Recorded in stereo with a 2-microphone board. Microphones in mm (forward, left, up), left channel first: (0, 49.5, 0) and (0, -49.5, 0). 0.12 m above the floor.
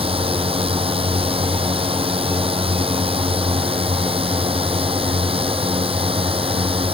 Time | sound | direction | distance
0.0 | a drone | 70° right (ahead or behind) | ?